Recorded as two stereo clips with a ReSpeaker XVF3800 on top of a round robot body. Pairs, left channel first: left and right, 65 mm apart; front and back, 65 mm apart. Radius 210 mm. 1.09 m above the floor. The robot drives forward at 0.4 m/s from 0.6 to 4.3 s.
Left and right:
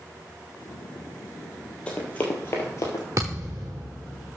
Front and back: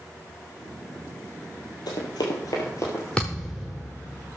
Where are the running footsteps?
20° left, 2 m; by 3.1 s 60° left, 1.9 m.